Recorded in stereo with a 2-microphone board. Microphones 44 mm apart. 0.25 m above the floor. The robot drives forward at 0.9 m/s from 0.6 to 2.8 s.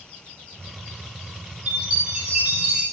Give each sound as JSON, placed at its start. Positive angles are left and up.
{"t": 1.7, "sound": "a chime", "side_deg": -30, "distance_m": 8.0}